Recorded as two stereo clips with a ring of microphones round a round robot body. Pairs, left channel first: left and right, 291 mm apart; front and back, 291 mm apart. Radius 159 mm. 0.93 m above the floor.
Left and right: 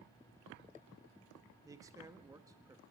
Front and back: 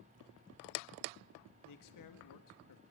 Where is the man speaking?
10° right, 1.7 m.